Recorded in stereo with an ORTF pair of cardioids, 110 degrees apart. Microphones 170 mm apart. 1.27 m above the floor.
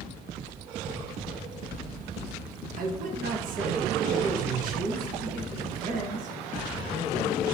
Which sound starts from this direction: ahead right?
A man speaking, at 2.8 s.